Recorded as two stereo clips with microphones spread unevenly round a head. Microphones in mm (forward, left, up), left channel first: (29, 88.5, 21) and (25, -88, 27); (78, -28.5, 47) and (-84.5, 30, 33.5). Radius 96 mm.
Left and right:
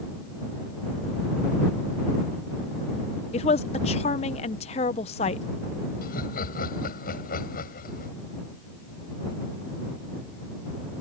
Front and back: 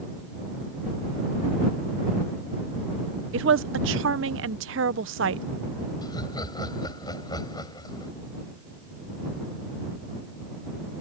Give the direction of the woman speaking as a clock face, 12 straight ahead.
7 o'clock.